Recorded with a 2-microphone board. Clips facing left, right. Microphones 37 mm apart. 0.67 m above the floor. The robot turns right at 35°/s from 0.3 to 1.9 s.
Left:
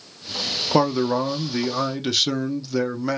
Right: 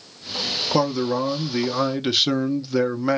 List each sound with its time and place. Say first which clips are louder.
0.7 s a man speaking: left 2 dB; 155° left, 0.7 m; by 3.2 s 165° right, 0.7 m